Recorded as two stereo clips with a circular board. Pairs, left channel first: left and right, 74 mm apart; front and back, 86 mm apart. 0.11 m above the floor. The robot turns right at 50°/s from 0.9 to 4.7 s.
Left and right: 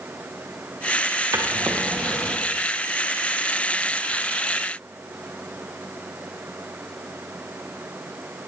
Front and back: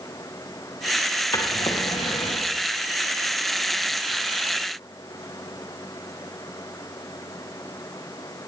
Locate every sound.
1.3 s a drawer: 50° right, 3.5 m; by 2.5 s 10° left, 3.5 m